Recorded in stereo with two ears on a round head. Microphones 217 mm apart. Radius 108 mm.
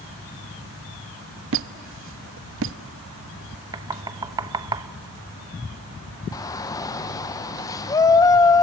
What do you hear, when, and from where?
1.5 s a squeak: 55° right (ahead or behind), 0.6 m
3.7 s knocking: 15° right (ahead or behind), 0.7 m
6.3 s a shout: 15° left (ahead or behind), 0.9 m